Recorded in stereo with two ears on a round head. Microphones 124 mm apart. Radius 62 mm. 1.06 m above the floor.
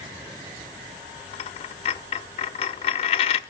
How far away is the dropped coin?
About 0.9 m.